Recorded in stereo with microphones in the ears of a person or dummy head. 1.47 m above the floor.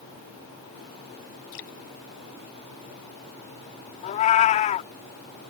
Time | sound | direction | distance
1.5 | dripping | 75° left (ahead or behind) | ?
4.0 | a cat meowing | 40° left (ahead or behind) | ?